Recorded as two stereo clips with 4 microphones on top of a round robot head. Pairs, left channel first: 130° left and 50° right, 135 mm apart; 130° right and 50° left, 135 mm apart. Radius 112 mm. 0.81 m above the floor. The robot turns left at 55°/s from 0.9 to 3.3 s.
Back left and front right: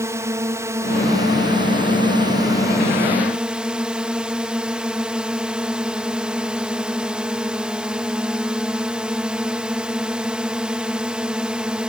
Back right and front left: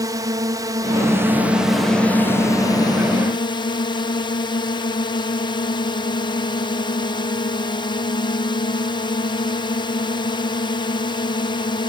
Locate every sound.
0.0 s a drone: 5° left; by 11.9 s 125° right